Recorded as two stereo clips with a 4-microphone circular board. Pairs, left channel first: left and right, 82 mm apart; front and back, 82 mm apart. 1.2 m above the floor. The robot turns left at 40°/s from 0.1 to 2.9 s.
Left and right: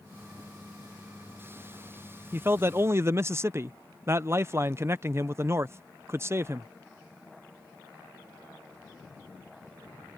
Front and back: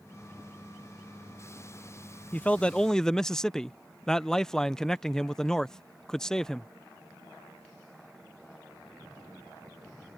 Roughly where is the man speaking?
Ahead right.